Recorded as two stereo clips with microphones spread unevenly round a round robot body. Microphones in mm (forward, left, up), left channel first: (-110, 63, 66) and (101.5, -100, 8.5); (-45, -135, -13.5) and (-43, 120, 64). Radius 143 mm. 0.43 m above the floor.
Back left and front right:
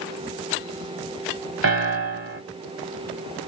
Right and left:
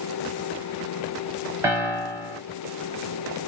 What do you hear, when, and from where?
1.6 s a piano: 5° left, 1.5 m